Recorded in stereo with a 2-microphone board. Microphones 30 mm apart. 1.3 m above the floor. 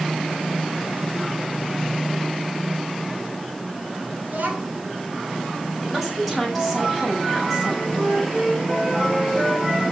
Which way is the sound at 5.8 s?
10° right (ahead or behind).